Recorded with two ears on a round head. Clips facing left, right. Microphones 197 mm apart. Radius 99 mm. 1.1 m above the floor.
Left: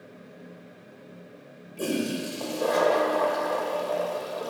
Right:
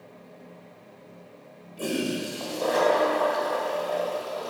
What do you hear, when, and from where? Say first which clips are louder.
1.8 s a toilet flushing: even; 30° left (ahead or behind), 1.2 m